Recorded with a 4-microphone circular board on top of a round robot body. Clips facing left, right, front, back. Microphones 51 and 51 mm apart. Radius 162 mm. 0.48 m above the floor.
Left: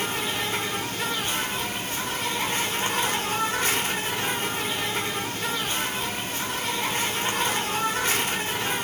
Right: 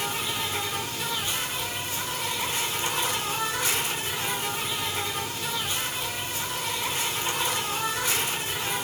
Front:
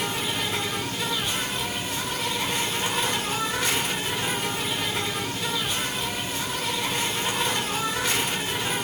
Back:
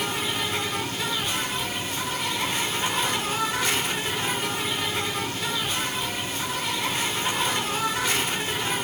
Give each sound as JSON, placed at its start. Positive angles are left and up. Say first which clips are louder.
{"t": 0.0, "sound": "an insect", "louder": "left 2 dB, even", "azimuth_deg": 90, "distance_m": 1.4}